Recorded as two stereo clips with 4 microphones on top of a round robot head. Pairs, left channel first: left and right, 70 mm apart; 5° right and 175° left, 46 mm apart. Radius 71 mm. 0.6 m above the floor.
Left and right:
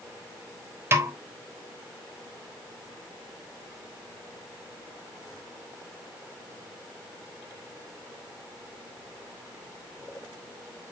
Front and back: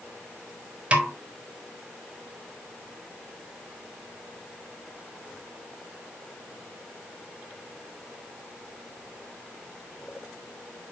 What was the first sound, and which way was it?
A snare drum, 130° right.